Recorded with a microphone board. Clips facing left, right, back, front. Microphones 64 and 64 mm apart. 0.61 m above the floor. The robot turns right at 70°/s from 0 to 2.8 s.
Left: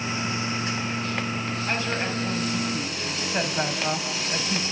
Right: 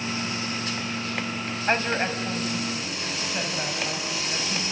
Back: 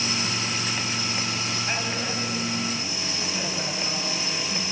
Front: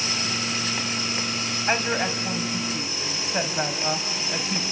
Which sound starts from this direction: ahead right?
A woman speaking, at 1.7 s.